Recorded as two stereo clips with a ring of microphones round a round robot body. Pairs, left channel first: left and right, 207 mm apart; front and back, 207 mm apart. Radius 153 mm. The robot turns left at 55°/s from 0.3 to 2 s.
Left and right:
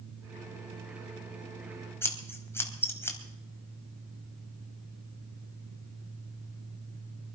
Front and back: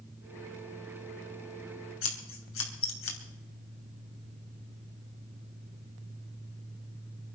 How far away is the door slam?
No door slam in this recording.